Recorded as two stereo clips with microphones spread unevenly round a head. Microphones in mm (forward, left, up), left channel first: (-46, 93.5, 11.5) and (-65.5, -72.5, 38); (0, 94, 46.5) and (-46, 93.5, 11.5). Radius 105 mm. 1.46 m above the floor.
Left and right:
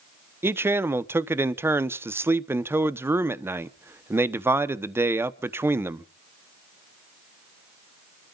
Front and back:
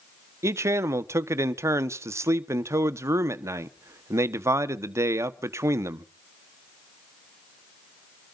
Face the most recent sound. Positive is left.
turn(degrees=-175)